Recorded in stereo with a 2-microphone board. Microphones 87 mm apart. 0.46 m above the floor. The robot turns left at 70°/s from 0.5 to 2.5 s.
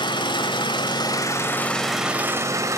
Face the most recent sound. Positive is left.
turn(degrees=-40)